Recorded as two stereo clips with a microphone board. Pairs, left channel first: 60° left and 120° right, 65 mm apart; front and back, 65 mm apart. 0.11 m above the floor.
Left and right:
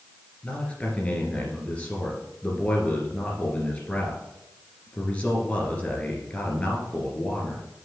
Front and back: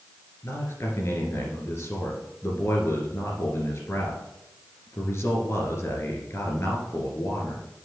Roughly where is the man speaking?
Ahead.